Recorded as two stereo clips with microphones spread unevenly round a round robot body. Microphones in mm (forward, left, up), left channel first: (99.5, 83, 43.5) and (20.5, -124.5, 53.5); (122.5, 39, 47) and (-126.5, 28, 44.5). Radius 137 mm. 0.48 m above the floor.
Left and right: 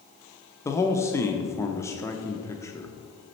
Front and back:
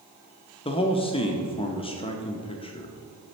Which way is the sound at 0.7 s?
20° left.